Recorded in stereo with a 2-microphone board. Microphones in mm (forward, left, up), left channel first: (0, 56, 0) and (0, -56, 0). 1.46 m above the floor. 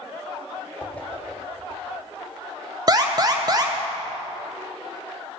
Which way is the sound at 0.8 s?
10° left (ahead or behind).